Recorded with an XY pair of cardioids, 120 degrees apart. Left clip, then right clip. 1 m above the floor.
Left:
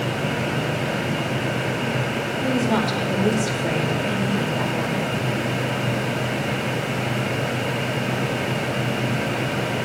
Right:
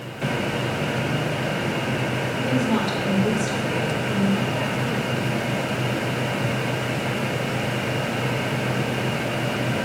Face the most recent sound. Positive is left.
turn(degrees=10)